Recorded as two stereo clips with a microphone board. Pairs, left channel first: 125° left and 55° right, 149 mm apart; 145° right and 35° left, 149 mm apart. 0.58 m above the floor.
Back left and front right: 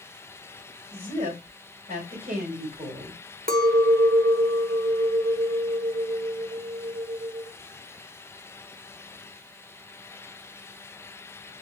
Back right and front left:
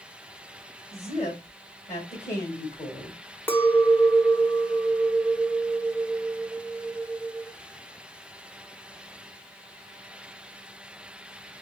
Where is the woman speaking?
100° right, 3.5 m.